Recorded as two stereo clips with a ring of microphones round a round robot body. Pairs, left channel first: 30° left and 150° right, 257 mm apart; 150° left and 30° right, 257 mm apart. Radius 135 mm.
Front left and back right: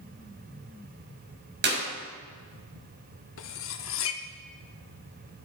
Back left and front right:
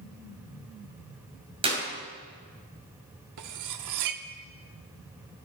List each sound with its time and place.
1.6 s a clap: 100° right, 5.5 m
3.4 s cutlery clinking: 10° right, 0.9 m